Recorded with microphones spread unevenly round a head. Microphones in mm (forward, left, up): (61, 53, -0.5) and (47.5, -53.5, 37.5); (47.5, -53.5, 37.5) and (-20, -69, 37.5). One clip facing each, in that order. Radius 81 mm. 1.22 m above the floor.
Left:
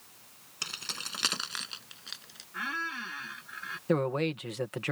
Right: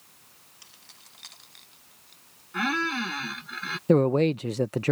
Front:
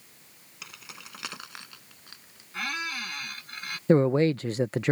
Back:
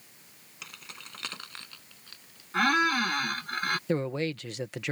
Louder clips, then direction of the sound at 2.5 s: Right 10 dB, back 9 dB; 130° right.